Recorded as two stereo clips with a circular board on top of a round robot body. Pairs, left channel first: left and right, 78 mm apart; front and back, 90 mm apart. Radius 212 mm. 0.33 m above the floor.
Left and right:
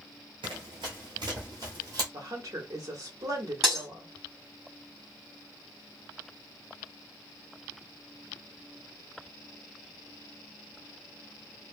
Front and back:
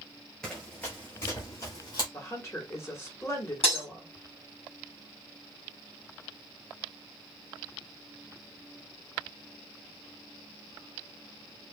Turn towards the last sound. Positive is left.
turn(degrees=5)